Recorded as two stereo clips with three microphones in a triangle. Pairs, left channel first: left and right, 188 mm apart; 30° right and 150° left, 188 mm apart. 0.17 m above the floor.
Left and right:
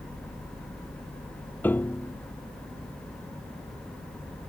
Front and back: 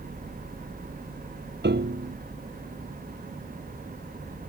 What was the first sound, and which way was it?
A piano, 170° left.